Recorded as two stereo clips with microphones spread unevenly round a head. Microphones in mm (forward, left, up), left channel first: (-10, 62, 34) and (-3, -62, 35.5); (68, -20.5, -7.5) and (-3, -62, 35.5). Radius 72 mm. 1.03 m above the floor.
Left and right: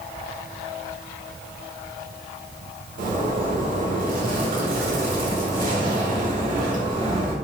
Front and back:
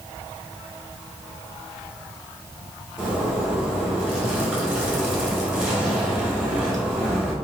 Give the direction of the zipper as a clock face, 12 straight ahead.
2 o'clock.